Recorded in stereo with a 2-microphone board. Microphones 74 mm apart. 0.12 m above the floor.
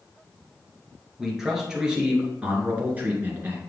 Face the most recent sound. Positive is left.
turn(degrees=-30)  # may be behind; listen again after turning